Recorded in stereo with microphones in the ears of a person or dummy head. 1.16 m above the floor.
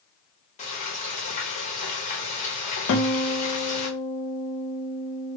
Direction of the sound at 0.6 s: 35° left (ahead or behind).